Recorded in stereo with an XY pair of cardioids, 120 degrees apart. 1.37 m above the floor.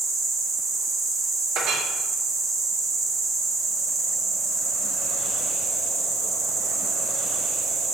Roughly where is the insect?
Ahead right.